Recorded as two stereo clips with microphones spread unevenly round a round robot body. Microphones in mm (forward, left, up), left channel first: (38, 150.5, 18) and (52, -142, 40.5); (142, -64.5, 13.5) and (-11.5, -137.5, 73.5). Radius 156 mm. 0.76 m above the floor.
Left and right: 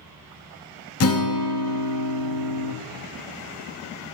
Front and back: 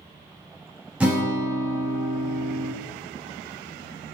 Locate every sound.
1.0 s a guitar: 110° left, 0.9 m